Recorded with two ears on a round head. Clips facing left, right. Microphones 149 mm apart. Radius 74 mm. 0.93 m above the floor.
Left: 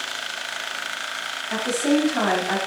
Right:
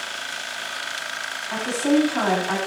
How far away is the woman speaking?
About 7 m.